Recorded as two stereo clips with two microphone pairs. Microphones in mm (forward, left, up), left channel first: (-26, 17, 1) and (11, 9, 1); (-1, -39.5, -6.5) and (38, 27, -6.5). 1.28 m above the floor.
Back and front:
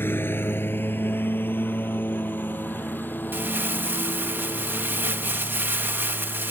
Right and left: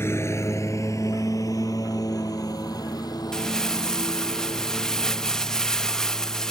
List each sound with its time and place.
0.0 s a lawn mower: straight behind; by 6.5 s 150° right
3.3 s crumpling: 40° right